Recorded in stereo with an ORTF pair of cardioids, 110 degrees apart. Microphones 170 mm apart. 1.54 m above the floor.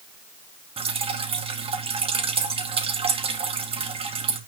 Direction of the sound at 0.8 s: 35° right.